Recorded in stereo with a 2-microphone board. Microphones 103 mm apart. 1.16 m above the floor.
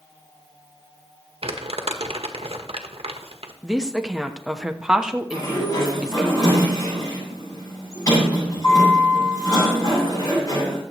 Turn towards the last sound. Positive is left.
turn(degrees=35)  # may be behind; listen again after turning